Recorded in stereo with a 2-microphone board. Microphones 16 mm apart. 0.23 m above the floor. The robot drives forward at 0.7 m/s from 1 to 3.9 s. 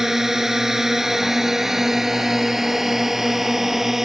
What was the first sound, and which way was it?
A drone, 25° right (ahead or behind).